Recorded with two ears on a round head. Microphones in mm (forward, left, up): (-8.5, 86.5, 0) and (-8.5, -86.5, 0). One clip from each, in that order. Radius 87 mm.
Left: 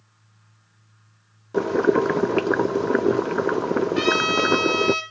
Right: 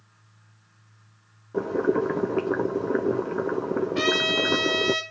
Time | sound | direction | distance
1.5 | boiling | 75° left (ahead or behind) | 0.7 m
4.0 | a trumpet | 5° left (ahead or behind) | 5.5 m